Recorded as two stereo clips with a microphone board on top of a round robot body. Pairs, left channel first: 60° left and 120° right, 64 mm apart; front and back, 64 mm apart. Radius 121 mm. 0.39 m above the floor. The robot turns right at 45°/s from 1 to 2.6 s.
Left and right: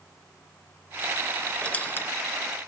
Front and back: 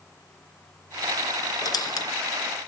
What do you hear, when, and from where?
1.6 s a squeak: 15° right, 0.8 m; by 2.1 s 10° left, 0.8 m